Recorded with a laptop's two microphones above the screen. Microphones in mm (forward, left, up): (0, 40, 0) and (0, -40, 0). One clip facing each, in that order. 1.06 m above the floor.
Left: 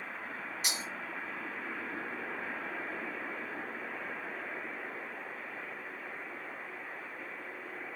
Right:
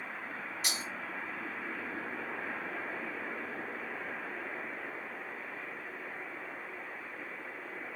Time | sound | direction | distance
0.6 | breaking glass | 15° left (ahead or behind) | 1.5 m